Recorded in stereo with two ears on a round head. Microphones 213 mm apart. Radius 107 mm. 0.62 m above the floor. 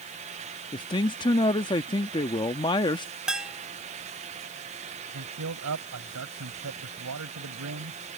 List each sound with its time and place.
0.7 s a man speaking: 20° left (ahead or behind)
3.3 s a bell: 5° right (ahead or behind)
5.1 s a man speaking: 75° right (ahead or behind)